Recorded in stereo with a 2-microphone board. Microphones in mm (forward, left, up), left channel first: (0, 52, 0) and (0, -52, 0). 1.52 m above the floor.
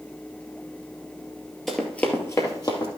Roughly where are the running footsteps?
Centre.